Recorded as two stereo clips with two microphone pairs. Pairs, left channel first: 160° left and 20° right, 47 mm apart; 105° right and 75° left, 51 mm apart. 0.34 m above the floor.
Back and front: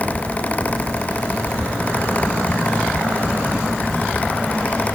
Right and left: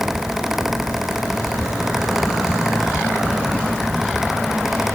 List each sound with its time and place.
Only background noise.